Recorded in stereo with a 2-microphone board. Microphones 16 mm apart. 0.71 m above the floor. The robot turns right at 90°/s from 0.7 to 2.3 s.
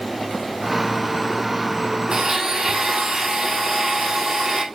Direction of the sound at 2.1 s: 65° right (ahead or behind).